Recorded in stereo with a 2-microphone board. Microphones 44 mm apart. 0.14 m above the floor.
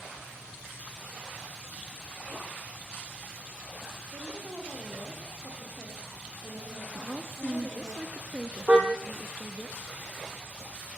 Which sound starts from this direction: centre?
A woman speaking, at 7.0 s.